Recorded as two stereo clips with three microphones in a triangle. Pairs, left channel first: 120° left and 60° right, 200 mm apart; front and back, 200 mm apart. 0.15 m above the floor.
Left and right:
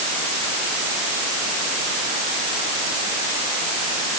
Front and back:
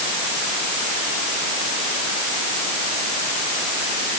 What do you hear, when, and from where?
Only background noise.